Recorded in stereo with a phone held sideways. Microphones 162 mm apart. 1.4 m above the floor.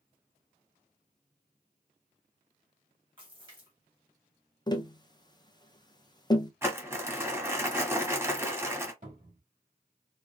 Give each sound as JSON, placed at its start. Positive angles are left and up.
{"t": 3.2, "sound": "a splash", "side_deg": -30, "distance_m": 2.0}
{"t": 4.7, "sound": "tapping", "side_deg": 25, "distance_m": 0.6}
{"t": 6.6, "sound": "crumpling", "side_deg": -15, "distance_m": 1.3}
{"t": 9.0, "sound": "a cupboard door", "side_deg": -55, "distance_m": 2.5}